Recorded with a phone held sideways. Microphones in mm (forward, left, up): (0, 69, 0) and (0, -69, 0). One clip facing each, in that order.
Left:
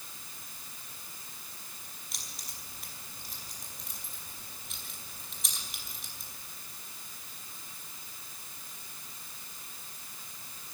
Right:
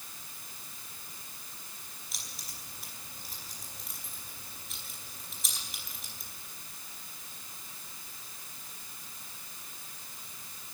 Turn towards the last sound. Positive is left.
turn(degrees=0)  # may be behind; listen again after turning